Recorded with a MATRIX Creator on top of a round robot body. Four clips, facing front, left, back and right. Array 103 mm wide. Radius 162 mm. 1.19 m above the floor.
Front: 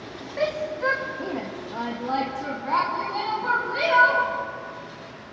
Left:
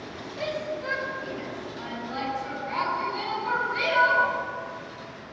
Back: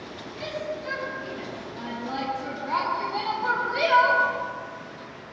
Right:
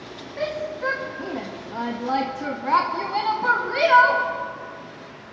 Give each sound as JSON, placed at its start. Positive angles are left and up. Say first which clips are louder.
{"t": 0.4, "sound": "a shout", "louder": "right 4 dB, front 7 dB", "azimuth_deg": -20, "distance_m": 2.0}